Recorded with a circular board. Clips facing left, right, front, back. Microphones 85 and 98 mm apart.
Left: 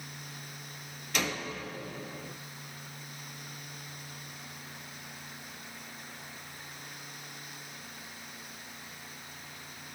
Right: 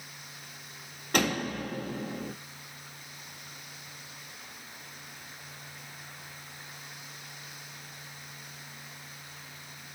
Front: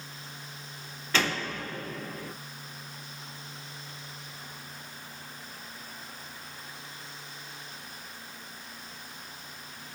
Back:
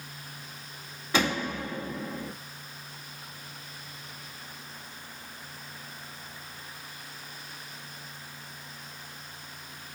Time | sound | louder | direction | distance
1.1 | a door slam | right 6 dB, back 2 dB | 105° right | 2.5 m